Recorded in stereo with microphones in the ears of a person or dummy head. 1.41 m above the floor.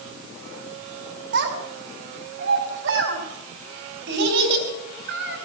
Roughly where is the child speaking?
Right.